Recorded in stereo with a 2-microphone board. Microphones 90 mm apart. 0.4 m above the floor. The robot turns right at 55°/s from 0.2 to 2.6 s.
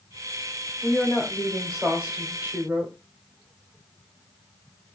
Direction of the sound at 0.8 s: 15° left (ahead or behind).